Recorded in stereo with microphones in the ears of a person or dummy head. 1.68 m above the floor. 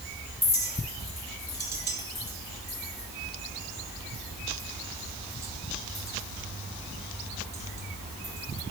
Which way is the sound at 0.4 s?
15° right (ahead or behind).